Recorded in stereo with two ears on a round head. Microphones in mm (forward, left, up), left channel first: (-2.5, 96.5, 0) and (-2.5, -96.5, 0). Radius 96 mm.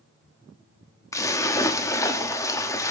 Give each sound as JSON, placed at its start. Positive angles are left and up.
{"t": 1.1, "sound": "a splash", "side_deg": 15, "distance_m": 0.9}